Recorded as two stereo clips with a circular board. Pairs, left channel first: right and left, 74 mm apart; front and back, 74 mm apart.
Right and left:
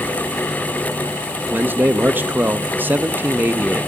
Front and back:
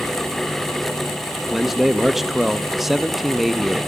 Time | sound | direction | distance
1.5 | a man speaking | 95° left | 0.5 m